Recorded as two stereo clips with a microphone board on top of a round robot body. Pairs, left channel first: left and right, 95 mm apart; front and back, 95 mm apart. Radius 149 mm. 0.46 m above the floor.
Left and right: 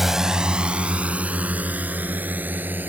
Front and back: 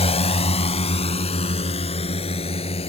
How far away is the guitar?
No guitar in this recording.